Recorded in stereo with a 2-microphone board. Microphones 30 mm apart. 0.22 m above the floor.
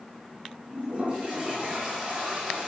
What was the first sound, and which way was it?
A toilet flushing, 45° right (ahead or behind).